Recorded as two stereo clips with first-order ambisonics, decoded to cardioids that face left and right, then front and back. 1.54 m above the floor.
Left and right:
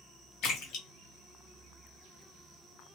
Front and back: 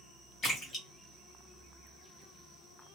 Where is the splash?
60° left, 1.1 m.